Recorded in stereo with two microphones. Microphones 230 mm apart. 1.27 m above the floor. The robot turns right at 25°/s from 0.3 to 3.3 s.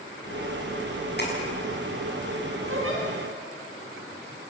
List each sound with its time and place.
1.2 s tapping: 45° left (ahead or behind), 6.5 m
2.7 s a giggle: 70° right (ahead or behind), 6.5 m; by 3.0 s 65° right (ahead or behind), 6.5 m